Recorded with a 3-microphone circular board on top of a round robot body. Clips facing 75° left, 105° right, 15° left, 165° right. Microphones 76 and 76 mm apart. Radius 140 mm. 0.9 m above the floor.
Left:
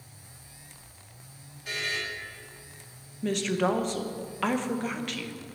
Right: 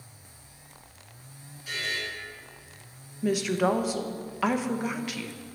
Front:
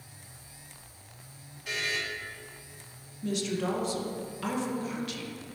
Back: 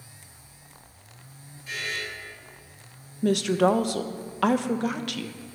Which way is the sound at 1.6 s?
35° left.